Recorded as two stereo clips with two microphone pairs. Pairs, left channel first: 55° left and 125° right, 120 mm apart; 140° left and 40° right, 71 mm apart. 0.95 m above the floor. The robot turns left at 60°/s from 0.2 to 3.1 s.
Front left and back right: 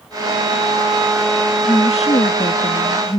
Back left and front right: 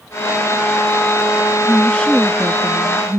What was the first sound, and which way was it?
A woman speaking, 95° left.